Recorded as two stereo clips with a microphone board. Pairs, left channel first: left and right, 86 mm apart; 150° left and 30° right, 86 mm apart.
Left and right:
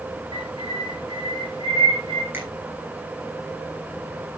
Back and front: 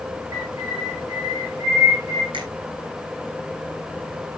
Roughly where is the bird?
Right.